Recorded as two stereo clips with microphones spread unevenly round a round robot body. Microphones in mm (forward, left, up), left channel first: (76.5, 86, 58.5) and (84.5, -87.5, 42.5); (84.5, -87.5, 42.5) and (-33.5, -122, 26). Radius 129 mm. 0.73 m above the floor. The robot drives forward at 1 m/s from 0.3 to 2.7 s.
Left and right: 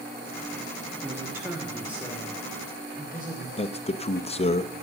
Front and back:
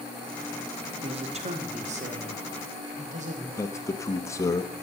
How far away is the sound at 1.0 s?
About 1.2 m.